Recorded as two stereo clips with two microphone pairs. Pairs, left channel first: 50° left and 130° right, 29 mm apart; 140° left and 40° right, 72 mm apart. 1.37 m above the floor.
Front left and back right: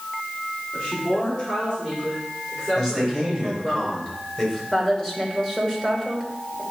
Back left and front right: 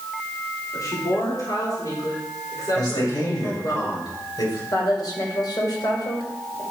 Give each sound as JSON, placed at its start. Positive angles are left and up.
{"t": 0.7, "sound": "a woman speaking", "azimuth_deg": 100, "distance_m": 3.5}
{"t": 2.8, "sound": "a man speaking", "azimuth_deg": 120, "distance_m": 5.0}
{"t": 4.7, "sound": "a woman speaking", "azimuth_deg": 120, "distance_m": 2.5}